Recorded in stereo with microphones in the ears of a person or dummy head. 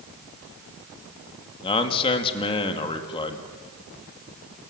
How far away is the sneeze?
I don't hear a sneeze.